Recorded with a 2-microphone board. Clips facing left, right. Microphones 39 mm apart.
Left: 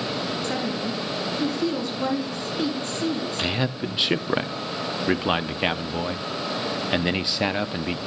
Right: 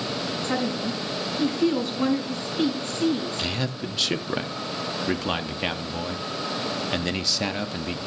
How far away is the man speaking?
About 0.5 m.